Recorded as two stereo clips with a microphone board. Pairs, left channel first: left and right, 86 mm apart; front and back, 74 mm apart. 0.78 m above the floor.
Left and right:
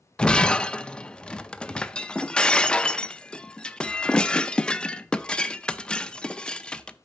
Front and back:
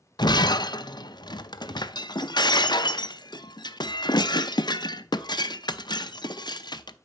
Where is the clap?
I don't hear a clap.